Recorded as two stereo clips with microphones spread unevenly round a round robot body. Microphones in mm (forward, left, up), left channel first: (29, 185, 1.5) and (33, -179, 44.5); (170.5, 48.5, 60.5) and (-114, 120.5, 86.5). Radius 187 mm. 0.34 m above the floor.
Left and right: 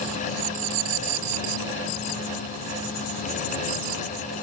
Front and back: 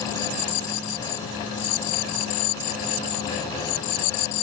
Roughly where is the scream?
I don't hear a scream.